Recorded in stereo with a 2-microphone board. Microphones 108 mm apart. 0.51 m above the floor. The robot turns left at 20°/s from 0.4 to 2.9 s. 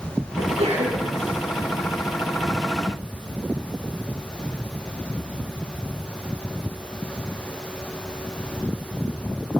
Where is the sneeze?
75° right (ahead or behind), 6 m; by 1.1 s 65° right (ahead or behind), 6 m.